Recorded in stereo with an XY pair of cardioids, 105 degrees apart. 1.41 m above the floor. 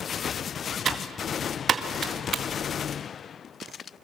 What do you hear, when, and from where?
0.8 s typing on a keyboard: 45° right, 1.8 m